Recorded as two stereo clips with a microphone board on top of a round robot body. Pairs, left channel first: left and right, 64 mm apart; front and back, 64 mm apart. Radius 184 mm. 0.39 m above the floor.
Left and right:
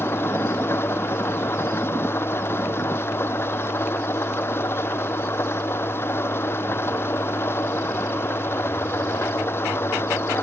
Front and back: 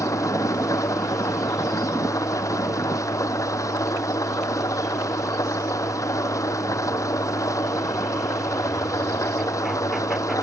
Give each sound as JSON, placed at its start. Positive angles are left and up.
{"t": 0.0, "sound": "an engine running", "azimuth_deg": 35}